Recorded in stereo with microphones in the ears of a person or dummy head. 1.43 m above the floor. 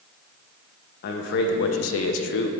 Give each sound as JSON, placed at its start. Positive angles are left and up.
{"t": 1.0, "sound": "a man speaking", "side_deg": 55, "distance_m": 1.1}